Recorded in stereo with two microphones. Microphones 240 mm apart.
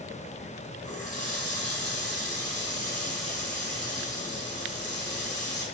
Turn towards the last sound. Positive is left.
turn(degrees=-75)  # may be behind; listen again after turning